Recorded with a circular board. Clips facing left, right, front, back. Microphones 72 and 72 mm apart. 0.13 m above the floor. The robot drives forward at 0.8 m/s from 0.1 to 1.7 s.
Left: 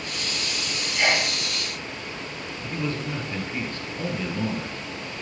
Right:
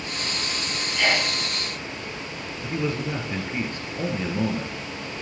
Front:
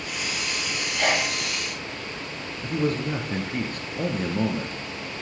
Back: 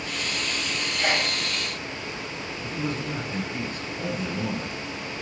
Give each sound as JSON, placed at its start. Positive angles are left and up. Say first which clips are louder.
{"t": 1.0, "sound": "a sneeze", "louder": "even, front 2 dB", "azimuth_deg": 15, "distance_m": 3.0}
{"t": 2.6, "sound": "a man speaking", "louder": "right 3 dB, front 6 dB", "azimuth_deg": -20, "distance_m": 2.5}